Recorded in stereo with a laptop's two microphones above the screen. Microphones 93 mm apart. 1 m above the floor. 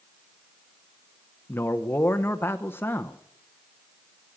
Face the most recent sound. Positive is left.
turn(degrees=25)  # may be behind; listen again after turning